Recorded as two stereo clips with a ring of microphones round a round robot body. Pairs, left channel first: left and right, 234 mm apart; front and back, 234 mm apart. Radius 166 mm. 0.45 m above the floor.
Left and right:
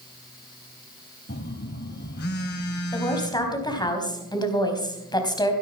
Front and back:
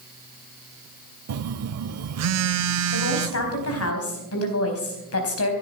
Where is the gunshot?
No gunshot in this recording.